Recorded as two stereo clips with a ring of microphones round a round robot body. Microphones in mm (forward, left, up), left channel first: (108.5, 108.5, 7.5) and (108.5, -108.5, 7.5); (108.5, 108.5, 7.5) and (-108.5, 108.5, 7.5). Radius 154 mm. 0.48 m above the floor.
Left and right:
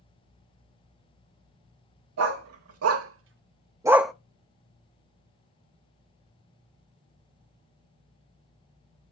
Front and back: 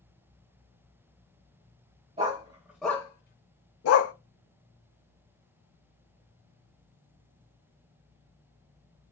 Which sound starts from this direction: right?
A dog barking, at 2.2 s.